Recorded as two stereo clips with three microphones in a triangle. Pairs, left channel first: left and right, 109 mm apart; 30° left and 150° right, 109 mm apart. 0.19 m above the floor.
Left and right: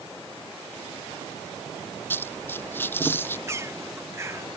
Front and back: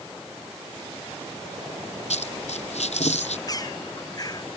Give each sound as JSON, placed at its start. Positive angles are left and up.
{"t": 2.1, "sound": "a dropped coin", "azimuth_deg": 20}
{"t": 3.5, "sound": "a bird", "azimuth_deg": -25}